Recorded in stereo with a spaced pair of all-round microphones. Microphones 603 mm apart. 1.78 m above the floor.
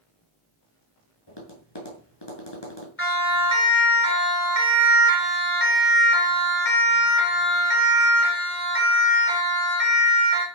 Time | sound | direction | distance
1.3 | tapping | 40° left (ahead or behind) | 6.5 m
3.0 | a siren | 20° left (ahead or behind) | 4.5 m